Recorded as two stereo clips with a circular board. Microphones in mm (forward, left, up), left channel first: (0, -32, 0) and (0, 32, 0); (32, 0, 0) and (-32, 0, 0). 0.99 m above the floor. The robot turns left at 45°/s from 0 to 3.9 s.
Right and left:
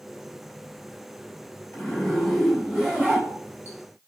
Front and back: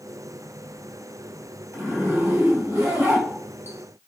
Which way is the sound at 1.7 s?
150° right.